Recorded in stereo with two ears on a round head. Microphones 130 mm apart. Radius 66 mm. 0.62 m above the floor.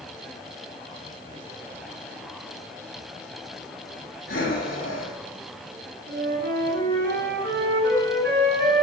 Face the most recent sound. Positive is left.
turn(degrees=-70)  # may be behind; listen again after turning